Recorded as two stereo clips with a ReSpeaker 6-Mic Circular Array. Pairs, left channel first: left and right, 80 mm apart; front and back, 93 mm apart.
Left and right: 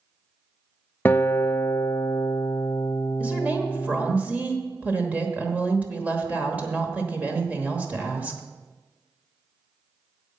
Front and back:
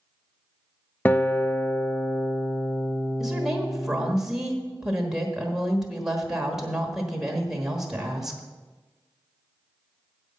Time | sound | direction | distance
1.1 | a guitar | 50° left | 0.5 m
3.2 | a woman speaking | 105° right | 1.3 m